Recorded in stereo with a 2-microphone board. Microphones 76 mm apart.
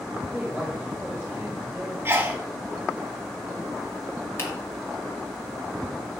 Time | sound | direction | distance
0.3 | a woman speaking | 5° right (ahead or behind) | 1.9 m
2.0 | a sneeze | 30° right (ahead or behind) | 1.2 m
4.4 | a finger snap | 30° left (ahead or behind) | 1.7 m